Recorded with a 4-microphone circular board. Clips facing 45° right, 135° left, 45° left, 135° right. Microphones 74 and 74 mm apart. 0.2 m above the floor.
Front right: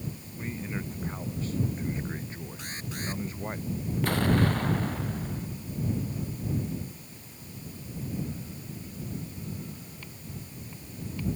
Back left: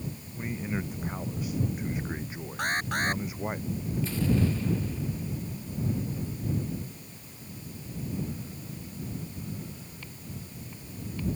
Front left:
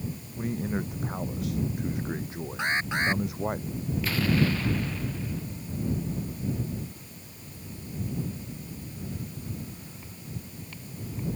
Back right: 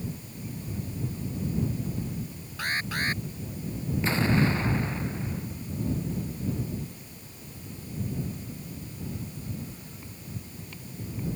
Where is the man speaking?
55° left.